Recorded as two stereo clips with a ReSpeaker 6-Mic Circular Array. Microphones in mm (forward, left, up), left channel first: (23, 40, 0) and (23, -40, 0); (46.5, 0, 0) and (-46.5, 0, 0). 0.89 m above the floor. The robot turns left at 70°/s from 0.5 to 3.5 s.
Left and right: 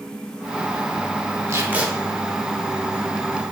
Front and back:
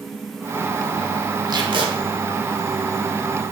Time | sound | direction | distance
1.5 | tape being pulled | 140° right | 0.8 m